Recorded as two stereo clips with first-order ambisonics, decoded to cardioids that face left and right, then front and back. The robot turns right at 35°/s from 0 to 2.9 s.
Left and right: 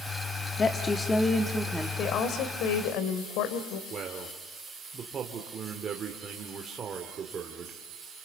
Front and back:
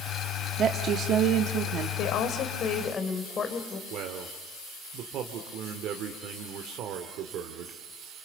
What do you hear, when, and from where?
0.6 s a woman speaking: 150° left, 1.2 m; by 1.9 s 165° right, 1.2 m
2.0 s a woman speaking: 35° left, 2.5 m; by 3.8 s 65° left, 2.5 m
3.9 s a man speaking: 150° right, 1.9 m